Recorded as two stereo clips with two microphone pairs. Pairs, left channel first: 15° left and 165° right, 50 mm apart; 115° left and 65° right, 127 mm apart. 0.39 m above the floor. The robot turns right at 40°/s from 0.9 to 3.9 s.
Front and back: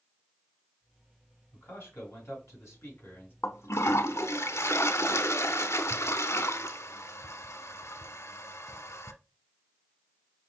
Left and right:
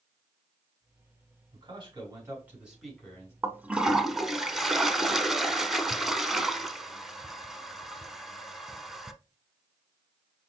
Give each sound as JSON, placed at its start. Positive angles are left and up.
{"t": 1.5, "sound": "a man speaking", "azimuth_deg": -25, "distance_m": 4.0}
{"t": 3.4, "sound": "a toilet flushing", "azimuth_deg": 5, "distance_m": 0.8}